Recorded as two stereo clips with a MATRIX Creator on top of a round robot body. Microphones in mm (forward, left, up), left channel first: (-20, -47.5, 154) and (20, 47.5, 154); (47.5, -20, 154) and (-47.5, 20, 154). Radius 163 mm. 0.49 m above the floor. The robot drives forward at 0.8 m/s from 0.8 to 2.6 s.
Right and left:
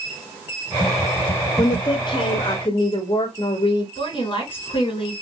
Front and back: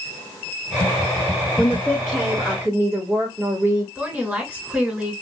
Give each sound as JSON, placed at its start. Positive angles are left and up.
{"t": 1.6, "sound": "a woman speaking", "azimuth_deg": -80, "distance_m": 1.0}
{"t": 4.0, "sound": "a woman speaking", "azimuth_deg": -125, "distance_m": 1.9}